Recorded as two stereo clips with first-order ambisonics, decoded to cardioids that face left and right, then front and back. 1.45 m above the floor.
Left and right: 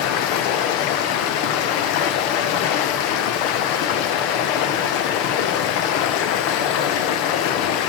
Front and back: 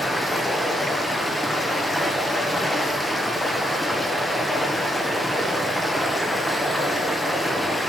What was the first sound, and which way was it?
Running water, 85° left.